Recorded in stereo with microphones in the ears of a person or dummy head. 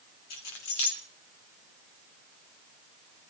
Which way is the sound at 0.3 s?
75° left (ahead or behind).